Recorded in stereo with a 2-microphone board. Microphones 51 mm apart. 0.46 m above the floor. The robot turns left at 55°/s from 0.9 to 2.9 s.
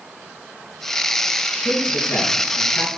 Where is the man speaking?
105° left, 5.5 m; by 2.9 s 35° left, 5.5 m.